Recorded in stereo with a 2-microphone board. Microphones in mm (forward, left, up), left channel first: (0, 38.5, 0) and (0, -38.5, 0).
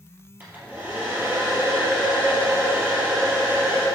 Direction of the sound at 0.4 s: 20° right (ahead or behind).